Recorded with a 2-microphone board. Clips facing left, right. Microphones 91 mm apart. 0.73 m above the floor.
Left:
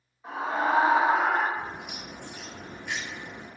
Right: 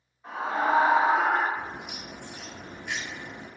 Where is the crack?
10° right (ahead or behind), 1.1 m.